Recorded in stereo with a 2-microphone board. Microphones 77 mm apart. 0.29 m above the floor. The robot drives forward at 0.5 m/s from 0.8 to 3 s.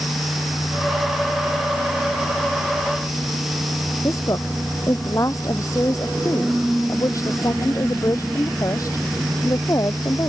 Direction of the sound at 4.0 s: 45° left (ahead or behind).